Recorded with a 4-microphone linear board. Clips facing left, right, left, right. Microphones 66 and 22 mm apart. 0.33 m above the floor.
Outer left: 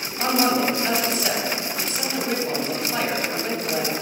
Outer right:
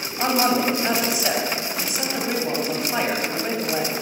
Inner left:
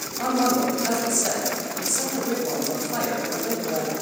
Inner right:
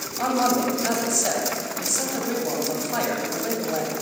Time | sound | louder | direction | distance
0.2 | a man speaking | even, even | 15° right (ahead or behind) | 1.9 m